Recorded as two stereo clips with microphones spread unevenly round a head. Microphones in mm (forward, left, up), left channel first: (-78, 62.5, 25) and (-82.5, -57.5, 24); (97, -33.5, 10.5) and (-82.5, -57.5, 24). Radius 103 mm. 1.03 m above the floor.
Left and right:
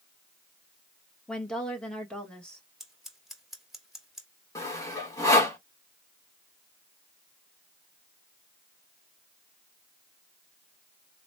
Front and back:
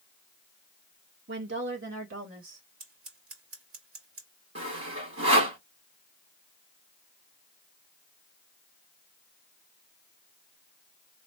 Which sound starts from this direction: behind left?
Sawing, at 4.5 s.